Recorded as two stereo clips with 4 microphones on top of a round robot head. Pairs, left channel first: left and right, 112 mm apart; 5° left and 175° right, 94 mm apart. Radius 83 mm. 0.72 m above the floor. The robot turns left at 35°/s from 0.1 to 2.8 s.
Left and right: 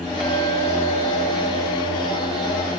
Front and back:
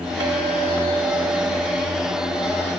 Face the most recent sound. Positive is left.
turn(degrees=90)